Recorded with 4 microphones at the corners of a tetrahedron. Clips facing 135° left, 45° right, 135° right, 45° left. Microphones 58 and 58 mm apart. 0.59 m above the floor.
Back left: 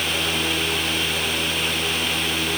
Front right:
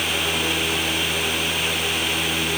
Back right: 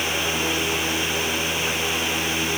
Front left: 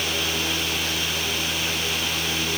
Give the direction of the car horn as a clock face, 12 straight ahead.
No car horn in this recording.